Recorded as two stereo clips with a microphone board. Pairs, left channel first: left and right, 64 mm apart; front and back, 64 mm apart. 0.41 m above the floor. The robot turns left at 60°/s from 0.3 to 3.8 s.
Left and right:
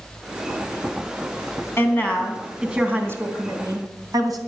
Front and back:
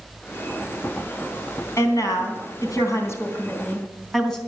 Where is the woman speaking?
40° left, 3 m; by 4.4 s 85° right, 3 m.